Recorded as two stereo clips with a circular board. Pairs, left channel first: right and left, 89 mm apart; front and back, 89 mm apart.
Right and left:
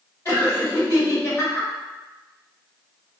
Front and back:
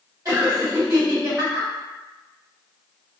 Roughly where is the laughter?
Behind right.